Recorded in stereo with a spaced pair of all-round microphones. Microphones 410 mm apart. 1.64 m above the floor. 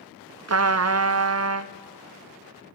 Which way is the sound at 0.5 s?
40° right (ahead or behind).